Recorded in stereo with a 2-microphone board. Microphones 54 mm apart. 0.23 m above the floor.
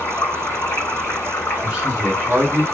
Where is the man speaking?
15° right (ahead or behind), 2 m.